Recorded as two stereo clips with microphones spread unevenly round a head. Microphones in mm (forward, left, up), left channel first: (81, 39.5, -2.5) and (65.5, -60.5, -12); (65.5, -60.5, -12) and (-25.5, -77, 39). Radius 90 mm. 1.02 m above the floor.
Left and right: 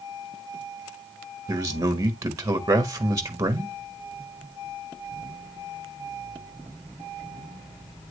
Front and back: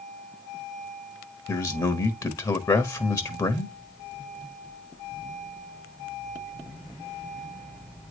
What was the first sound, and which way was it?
A man speaking, 35° right.